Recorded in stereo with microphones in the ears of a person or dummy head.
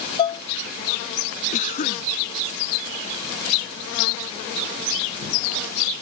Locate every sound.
0.2 s dishes clattering: 30° left (ahead or behind)
1.5 s a cough: 50° left (ahead or behind)